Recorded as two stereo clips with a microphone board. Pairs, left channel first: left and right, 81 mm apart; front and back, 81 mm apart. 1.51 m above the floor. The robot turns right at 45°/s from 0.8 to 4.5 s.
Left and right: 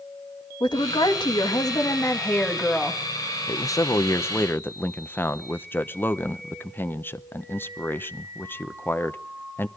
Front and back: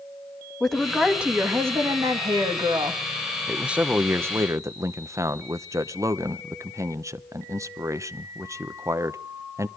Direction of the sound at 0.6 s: 85° left.